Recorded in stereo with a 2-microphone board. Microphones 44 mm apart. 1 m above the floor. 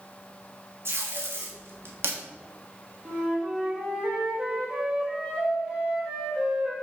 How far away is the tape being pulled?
About 1.4 m.